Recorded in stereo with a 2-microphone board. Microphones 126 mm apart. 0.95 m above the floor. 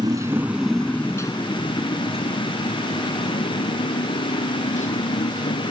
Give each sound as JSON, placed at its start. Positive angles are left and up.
{"t": 0.0, "sound": "a motorcycle", "side_deg": -30}